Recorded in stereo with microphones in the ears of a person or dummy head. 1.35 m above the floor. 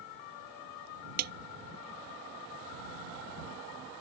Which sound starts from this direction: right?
A snare drum, at 1.2 s.